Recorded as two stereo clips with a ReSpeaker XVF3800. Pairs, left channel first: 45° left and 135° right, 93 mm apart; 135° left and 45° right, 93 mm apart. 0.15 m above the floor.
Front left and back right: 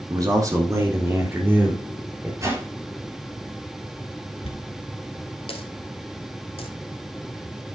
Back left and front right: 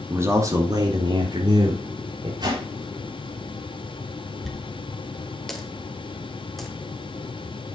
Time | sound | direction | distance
0.1 | a man speaking | 100° right | 2.5 m
2.4 | a whoosh | 80° right | 3.5 m
4.4 | a dropped coin | 45° left | 1.2 m